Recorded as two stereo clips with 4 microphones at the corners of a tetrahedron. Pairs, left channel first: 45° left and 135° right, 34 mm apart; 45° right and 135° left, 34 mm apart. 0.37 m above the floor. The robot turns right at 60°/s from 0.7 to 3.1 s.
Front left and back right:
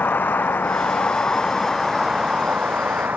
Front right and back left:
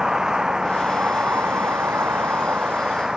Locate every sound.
0.0 s a vehicle: 65° left; by 3.2 s 150° right